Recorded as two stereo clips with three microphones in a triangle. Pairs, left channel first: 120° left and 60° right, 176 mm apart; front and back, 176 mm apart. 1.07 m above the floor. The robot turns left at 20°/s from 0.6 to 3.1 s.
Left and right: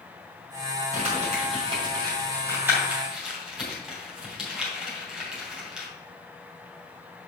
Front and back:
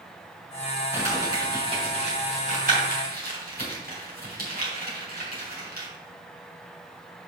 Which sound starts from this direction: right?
Crumpling, at 0.9 s.